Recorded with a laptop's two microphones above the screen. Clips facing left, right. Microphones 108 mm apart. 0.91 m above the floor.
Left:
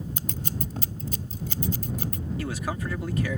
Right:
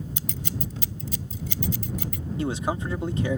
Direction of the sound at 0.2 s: 50° left (ahead or behind).